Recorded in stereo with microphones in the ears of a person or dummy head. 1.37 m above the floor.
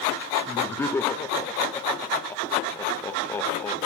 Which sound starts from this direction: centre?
Laughter, at 0.5 s.